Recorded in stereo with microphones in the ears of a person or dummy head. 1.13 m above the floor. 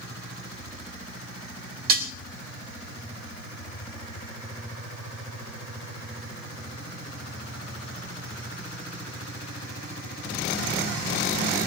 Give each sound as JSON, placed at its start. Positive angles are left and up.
{"t": 1.9, "sound": "dishes clattering", "side_deg": -50, "distance_m": 4.0}